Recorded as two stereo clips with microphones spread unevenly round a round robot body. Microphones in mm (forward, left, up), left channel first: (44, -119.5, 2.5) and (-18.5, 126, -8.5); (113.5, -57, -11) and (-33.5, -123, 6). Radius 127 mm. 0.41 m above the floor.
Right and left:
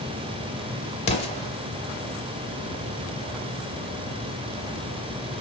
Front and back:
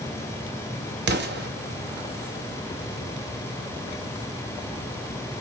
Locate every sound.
1.1 s an explosion: 145° right, 1.0 m